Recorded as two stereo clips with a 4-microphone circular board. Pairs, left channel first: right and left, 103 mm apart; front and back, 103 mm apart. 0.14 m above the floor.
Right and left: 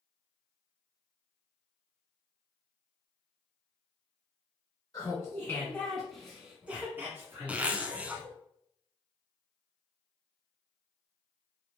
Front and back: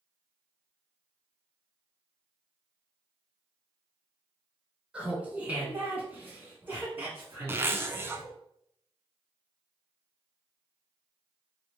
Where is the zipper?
150° left, 0.6 m.